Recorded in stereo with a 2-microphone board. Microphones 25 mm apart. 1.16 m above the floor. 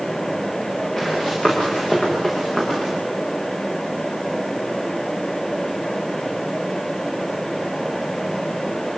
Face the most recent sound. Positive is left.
turn(degrees=30)  # may be behind; listen again after turning